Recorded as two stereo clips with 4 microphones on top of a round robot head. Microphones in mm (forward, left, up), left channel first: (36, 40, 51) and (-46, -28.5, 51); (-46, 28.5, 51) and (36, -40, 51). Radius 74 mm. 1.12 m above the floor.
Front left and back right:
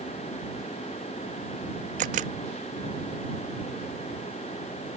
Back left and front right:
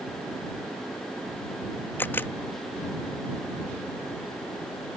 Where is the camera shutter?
145° right.